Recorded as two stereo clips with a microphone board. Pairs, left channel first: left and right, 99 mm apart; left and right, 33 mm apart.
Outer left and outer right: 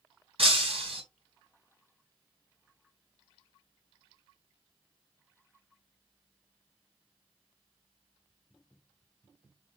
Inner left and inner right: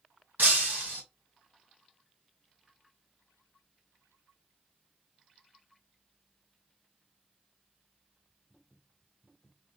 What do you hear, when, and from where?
0.4 s breaking glass: 75° right (ahead or behind), 3 m